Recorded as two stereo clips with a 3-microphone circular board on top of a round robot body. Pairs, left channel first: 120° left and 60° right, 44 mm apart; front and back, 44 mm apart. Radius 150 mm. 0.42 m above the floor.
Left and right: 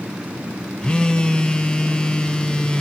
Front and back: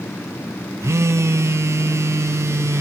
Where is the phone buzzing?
165° right, 0.6 m.